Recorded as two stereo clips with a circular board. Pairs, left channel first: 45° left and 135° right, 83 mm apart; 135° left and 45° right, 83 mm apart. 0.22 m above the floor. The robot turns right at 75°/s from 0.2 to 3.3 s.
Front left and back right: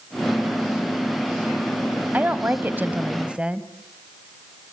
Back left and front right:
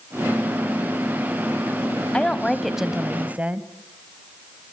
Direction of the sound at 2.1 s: 170° right.